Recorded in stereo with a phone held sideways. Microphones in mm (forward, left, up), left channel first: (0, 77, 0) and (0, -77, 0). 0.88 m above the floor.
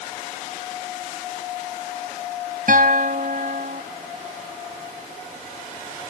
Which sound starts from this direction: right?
A guitar, at 2.7 s.